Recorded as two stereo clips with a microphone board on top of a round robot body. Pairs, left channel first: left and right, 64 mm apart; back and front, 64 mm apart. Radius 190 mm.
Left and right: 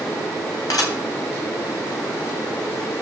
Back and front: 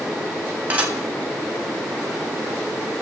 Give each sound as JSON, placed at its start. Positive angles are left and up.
{"t": 0.7, "sound": "dishes clattering", "azimuth_deg": 65, "distance_m": 3.5}